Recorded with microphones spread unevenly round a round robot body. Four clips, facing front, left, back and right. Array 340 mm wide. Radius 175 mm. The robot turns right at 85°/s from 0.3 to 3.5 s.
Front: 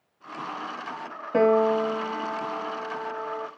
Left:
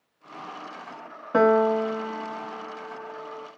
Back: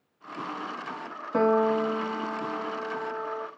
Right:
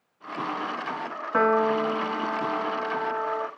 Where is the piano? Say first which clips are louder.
Left 3 dB, front 3 dB; 110° left, 1.0 m; by 3.5 s 70° right, 1.0 m.